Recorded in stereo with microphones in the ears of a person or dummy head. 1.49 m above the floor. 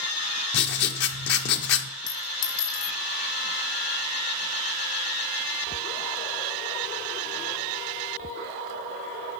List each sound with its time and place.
0.5 s writing: 60° left (ahead or behind), 0.7 m
2.1 s a clink: 75° left (ahead or behind), 1.8 m